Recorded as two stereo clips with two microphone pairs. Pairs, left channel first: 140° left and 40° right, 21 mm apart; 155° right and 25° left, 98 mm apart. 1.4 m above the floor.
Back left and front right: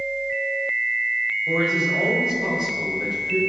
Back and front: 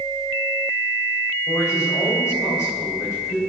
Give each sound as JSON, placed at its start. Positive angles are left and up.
{"t": 1.5, "sound": "a man speaking", "azimuth_deg": -100, "distance_m": 3.0}